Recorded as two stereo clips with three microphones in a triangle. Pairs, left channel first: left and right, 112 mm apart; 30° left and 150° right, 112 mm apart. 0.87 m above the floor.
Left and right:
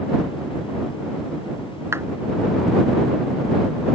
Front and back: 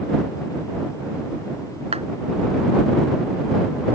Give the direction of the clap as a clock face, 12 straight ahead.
5 o'clock.